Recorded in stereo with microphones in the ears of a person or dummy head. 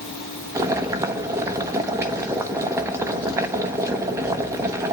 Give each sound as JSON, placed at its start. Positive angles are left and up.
{"t": 0.6, "sound": "boiling", "side_deg": -15, "distance_m": 0.9}